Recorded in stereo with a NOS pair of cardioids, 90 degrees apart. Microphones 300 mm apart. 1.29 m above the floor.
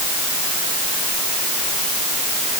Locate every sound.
Only background noise.